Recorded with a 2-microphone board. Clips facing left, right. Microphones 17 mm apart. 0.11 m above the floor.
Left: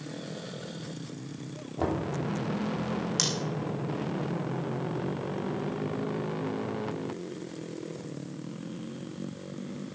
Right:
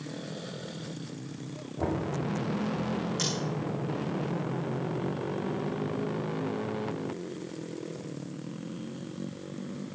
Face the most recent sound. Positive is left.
turn(degrees=45)  # may be behind; listen again after turning